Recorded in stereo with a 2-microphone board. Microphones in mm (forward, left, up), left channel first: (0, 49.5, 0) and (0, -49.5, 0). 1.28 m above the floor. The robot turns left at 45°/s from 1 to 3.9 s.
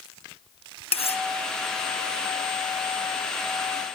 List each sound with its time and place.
0.9 s cutlery clinking: 85° left; by 1.2 s 70° left (ahead or behind)